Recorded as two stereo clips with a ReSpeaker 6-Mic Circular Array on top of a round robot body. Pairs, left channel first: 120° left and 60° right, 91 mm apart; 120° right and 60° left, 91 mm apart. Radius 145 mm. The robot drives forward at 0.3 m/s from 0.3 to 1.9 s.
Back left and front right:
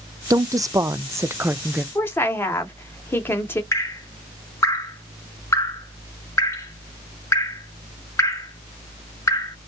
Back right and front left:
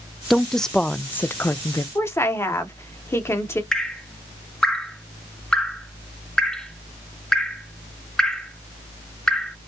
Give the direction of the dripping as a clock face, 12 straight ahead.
7 o'clock.